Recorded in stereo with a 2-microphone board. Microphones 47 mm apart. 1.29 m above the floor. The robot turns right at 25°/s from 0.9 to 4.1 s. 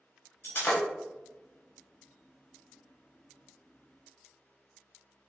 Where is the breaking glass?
50° left (ahead or behind), 1.5 m.